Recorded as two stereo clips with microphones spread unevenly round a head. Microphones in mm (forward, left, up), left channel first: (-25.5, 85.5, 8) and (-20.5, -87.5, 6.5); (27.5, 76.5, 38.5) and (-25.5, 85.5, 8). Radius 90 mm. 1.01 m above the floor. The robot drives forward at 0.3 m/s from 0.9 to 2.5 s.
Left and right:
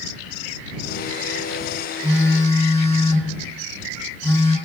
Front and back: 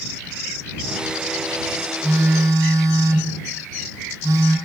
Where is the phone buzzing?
160° left, 1.2 m; by 4.6 s 165° left, 1.4 m.